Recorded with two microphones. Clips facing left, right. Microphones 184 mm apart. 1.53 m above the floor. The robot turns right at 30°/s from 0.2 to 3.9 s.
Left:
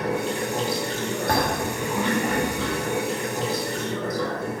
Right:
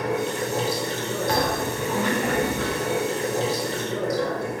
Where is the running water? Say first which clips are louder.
Even; 170° left, 2.5 m; by 4.6 s 75° right, 2.5 m.